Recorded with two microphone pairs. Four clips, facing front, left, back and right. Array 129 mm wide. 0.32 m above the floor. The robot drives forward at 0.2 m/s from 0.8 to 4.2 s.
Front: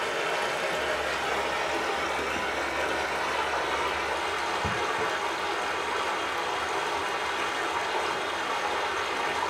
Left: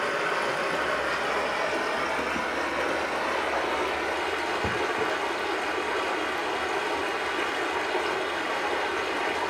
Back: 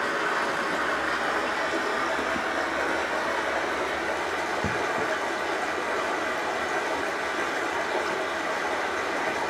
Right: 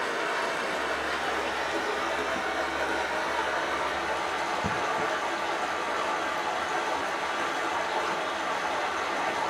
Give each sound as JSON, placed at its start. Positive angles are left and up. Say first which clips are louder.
{"t": 0.0, "sound": "running water", "louder": "left 2 dB, back 2 dB", "azimuth_deg": 155, "distance_m": 1.9}